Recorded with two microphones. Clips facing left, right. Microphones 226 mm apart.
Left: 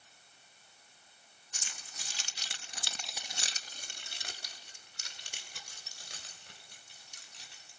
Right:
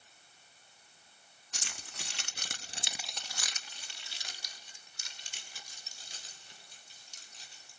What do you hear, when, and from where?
1.5 s keys jangling: 75° right (ahead or behind), 1.7 m; by 7.7 s 75° left (ahead or behind), 5 m